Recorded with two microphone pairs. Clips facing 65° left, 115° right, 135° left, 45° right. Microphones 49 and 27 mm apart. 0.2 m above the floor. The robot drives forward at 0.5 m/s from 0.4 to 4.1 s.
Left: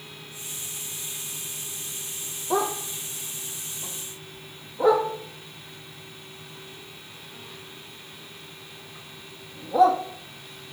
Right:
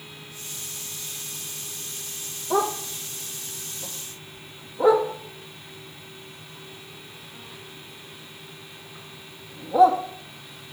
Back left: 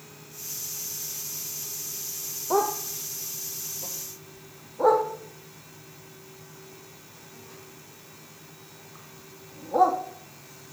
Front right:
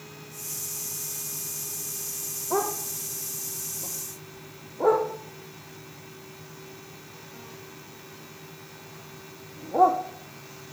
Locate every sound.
2.5 s a dog barking: 150° left, 2 m; by 10.0 s 160° left, 3 m